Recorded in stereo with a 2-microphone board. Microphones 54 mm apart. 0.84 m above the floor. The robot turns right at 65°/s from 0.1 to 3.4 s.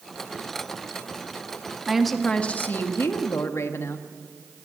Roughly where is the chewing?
I don't hear chewing.